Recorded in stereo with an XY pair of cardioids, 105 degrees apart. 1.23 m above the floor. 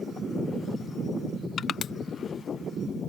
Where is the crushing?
55° left.